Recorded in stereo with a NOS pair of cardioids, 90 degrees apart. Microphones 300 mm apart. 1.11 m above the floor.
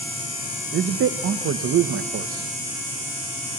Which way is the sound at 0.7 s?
50° right.